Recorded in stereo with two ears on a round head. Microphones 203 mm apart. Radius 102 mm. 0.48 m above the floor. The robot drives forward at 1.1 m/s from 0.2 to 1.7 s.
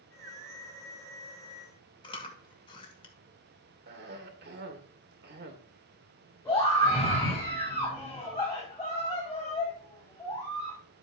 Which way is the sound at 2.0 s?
25° left (ahead or behind).